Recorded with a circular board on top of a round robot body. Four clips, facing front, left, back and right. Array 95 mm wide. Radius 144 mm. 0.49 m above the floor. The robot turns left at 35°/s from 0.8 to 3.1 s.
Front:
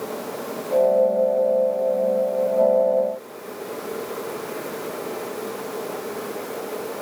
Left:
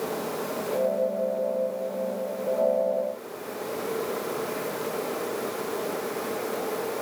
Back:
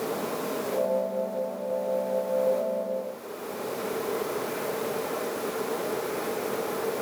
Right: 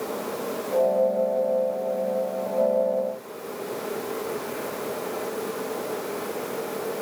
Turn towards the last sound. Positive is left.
No sound to turn to.